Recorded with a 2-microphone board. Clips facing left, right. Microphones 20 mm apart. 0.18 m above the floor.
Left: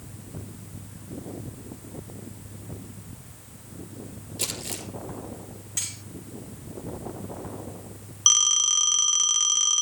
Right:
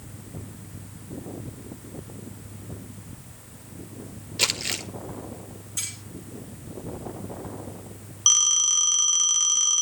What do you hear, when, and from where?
4.4 s crumpling: 45° right (ahead or behind), 1.2 m
5.8 s cutlery clinking: 30° left (ahead or behind), 8 m
8.3 s a phone ringing: 5° left (ahead or behind), 0.9 m